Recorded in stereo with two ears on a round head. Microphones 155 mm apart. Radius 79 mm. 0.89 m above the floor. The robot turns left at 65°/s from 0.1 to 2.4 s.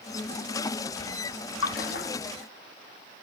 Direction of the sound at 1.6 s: 75° left (ahead or behind).